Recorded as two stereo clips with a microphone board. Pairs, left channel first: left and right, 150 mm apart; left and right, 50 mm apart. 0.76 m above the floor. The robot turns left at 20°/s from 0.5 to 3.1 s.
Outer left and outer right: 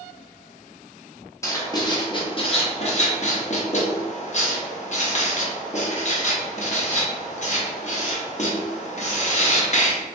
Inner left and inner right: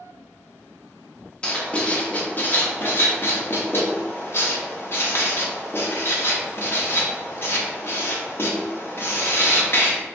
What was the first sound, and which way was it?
Writing, 20° left (ahead or behind).